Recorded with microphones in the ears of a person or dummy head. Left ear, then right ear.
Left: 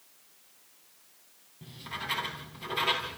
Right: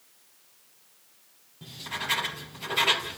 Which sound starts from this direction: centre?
Writing, at 1.6 s.